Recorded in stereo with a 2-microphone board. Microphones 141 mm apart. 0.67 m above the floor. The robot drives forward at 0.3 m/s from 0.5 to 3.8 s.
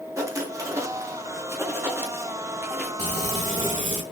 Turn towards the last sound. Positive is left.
turn(degrees=-60)  # may be behind; listen again after turning